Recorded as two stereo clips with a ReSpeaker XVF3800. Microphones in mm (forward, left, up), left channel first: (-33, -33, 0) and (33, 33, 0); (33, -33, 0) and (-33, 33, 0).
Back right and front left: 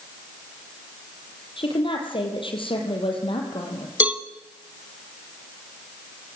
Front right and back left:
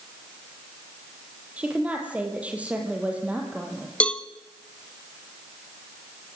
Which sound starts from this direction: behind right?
A woman speaking, at 1.6 s.